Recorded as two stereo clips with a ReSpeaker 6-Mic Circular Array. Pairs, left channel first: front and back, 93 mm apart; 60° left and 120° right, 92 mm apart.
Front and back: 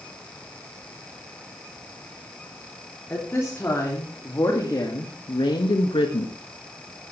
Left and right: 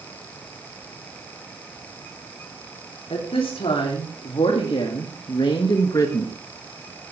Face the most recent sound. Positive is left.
turn(degrees=0)